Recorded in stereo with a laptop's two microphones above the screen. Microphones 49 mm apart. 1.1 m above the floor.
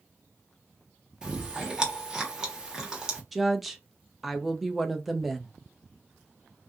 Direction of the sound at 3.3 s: 5° right (ahead or behind).